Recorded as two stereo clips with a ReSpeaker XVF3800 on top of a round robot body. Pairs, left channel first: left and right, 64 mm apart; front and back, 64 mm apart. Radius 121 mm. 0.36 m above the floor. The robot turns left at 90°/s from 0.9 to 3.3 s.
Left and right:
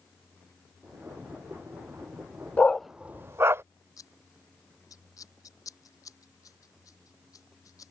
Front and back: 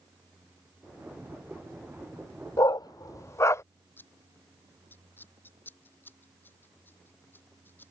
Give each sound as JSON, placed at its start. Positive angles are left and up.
{"t": 2.6, "sound": "a dog barking", "azimuth_deg": 25}
{"t": 4.0, "sound": "scissors", "azimuth_deg": 60}